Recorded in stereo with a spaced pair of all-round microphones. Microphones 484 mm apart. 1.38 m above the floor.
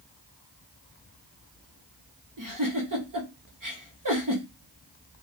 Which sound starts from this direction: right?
A giggle, at 2.4 s.